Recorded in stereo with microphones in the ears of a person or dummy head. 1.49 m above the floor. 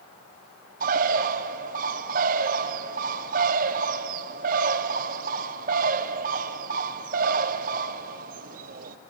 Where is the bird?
50° right (ahead or behind), 0.8 m.